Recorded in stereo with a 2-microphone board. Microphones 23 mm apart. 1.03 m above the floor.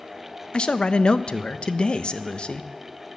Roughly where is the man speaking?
Left.